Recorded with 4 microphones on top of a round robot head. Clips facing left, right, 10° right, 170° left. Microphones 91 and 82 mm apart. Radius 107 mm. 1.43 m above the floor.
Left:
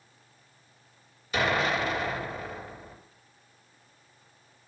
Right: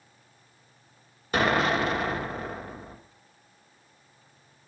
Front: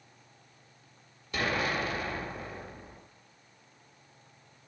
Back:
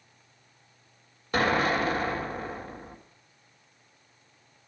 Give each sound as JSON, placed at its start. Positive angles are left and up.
{"t": 1.3, "sound": "an explosion", "azimuth_deg": -130, "distance_m": 1.3}